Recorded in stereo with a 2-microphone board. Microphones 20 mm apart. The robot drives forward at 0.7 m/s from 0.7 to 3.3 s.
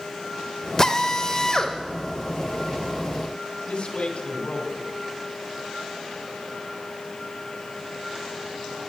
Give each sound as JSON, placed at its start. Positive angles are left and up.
{"t": 0.8, "sound": "a drill", "side_deg": 30, "distance_m": 0.7}
{"t": 3.7, "sound": "a man speaking", "side_deg": 55, "distance_m": 2.0}